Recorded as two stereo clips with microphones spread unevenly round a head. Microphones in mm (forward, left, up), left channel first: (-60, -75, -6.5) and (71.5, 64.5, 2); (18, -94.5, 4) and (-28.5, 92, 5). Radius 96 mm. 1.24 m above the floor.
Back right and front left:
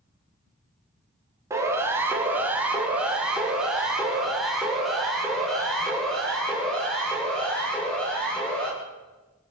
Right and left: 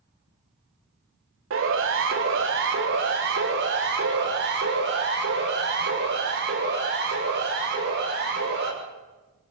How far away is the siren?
About 4 m.